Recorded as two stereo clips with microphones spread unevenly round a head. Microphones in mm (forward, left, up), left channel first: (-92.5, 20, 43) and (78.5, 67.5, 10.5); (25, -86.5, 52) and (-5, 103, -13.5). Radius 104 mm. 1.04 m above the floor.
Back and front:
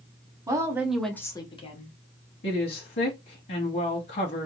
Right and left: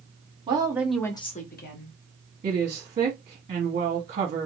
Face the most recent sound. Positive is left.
turn(degrees=155)